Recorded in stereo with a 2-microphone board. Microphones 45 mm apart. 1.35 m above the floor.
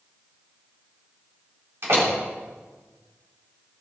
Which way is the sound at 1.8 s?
60° right (ahead or behind).